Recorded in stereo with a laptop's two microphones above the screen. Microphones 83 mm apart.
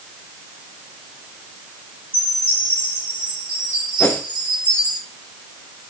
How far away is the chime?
About 3.5 m.